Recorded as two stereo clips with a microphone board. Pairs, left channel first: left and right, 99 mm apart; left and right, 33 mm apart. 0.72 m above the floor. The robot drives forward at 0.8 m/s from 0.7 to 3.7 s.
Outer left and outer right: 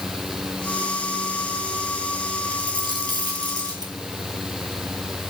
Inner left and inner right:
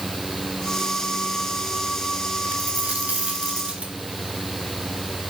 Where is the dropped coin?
55° right (ahead or behind), 3 m; by 3.9 s 40° right (ahead or behind), 3.5 m.